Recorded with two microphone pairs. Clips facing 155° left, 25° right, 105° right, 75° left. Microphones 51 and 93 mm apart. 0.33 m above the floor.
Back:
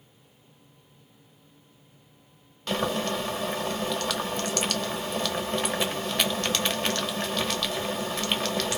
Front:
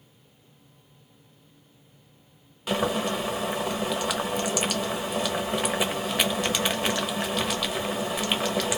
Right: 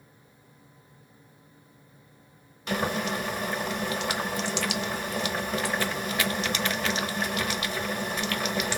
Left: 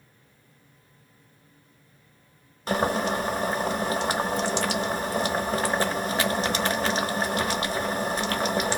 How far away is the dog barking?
No dog barking in this recording.